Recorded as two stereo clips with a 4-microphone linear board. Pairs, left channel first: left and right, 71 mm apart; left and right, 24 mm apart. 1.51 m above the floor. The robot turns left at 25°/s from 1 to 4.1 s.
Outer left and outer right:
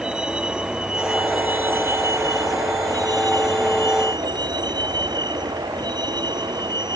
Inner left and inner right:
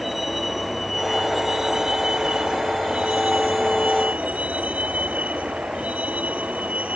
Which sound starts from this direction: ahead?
A vehicle, at 0.0 s.